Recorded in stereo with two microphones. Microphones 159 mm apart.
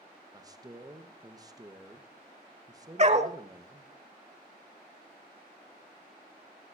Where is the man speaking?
25° right (ahead or behind), 1.4 m.